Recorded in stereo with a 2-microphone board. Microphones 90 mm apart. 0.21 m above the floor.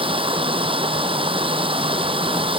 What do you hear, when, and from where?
0.0 s running water: 80° right